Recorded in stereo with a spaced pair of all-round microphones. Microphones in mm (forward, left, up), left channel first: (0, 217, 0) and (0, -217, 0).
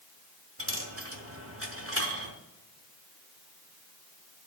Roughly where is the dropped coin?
Right.